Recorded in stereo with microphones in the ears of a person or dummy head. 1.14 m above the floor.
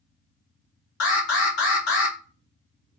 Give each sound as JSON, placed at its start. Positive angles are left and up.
{"t": 1.0, "sound": "an alarm", "side_deg": 75, "distance_m": 0.8}